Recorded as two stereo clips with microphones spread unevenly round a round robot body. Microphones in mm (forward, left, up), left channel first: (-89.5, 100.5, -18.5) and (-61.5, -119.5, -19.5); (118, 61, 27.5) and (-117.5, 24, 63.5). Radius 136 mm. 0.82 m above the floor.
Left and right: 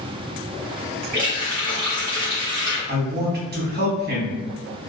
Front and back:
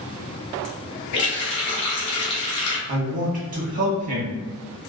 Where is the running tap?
Straight ahead, 1.1 m.